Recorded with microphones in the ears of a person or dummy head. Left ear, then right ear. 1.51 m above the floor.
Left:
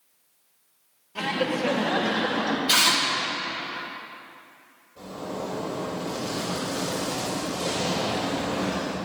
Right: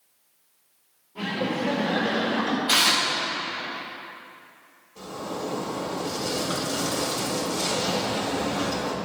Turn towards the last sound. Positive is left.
turn(degrees=-65)  # may be behind; listen again after turning